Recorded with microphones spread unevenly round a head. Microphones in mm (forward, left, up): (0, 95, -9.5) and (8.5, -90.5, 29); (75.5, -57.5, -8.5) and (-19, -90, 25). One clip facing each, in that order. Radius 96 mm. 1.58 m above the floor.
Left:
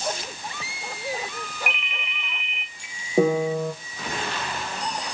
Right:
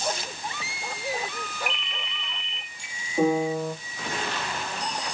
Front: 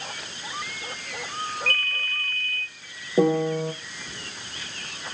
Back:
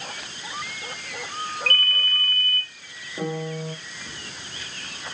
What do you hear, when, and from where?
1.7 s a ringtone: straight behind, 2 m
3.2 s a piano: 55° left, 1.8 m